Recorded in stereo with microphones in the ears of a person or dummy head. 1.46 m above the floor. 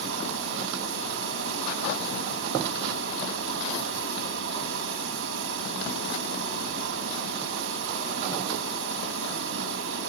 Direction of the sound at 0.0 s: 80° right.